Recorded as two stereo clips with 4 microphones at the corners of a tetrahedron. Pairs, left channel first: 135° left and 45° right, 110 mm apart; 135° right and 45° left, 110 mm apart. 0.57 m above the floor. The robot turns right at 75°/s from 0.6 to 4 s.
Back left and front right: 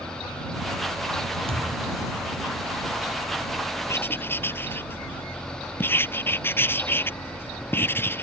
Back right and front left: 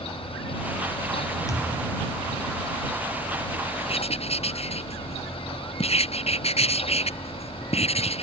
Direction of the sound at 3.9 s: 165° right.